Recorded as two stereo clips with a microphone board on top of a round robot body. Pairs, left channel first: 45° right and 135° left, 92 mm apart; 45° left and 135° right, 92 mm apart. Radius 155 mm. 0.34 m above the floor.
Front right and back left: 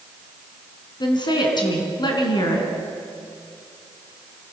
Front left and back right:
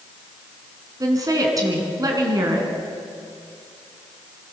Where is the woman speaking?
85° right, 4.5 m.